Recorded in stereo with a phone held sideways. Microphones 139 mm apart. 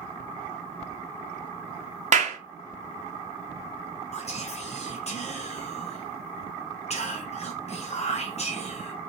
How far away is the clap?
About 0.6 m.